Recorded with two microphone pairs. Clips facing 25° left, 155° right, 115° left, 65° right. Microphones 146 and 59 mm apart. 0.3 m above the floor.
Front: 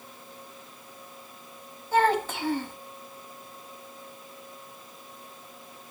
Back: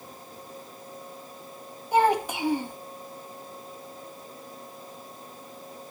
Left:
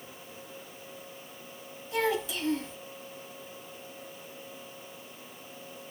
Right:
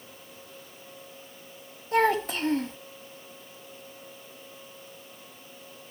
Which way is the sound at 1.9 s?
80° right.